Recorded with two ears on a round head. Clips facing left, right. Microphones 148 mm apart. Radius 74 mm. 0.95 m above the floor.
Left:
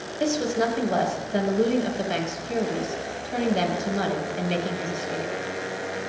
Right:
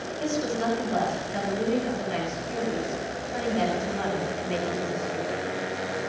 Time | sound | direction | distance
0.2 | a woman speaking | 70° left (ahead or behind) | 6.5 m